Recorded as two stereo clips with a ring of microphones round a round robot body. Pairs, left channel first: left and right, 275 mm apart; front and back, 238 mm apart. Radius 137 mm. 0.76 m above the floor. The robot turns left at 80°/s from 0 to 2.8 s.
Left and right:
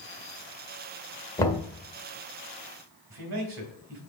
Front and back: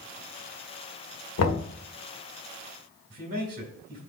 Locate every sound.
1.4 s knocking: 15° left, 1.6 m; by 1.7 s 5° right, 1.6 m
3.1 s a man speaking: 120° right, 2.5 m